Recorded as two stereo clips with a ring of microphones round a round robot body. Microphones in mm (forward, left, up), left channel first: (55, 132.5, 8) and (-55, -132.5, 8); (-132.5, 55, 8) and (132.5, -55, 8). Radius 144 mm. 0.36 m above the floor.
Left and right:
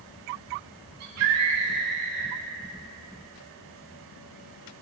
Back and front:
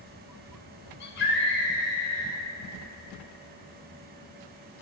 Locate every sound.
1.0 s a scream: 150° right, 5 m; by 2.4 s 140° right, 4.5 m